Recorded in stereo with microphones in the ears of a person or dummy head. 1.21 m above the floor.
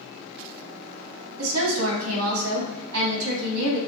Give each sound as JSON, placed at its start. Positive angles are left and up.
{"t": 1.4, "sound": "a woman speaking", "side_deg": -80, "distance_m": 1.7}